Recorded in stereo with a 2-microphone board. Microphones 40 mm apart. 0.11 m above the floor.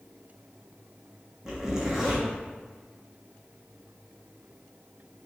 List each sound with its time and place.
1.4 s a zipper: 15° right (ahead or behind), 1.2 m